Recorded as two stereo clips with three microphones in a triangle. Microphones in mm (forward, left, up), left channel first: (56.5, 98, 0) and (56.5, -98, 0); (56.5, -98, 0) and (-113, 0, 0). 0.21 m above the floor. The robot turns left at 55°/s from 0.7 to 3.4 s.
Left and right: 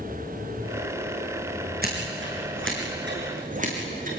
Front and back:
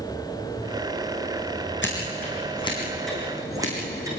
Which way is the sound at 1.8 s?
50° right.